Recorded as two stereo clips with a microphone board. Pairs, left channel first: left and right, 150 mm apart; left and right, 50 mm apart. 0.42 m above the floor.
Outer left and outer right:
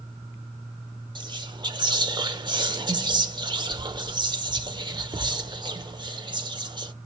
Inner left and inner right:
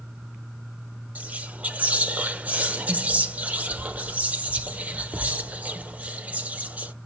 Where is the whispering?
35° right (ahead or behind), 1.0 m.